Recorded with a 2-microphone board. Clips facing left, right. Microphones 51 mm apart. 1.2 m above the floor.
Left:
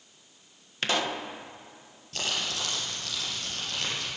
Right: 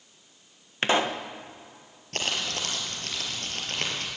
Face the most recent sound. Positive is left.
turn(degrees=-50)  # may be behind; listen again after turning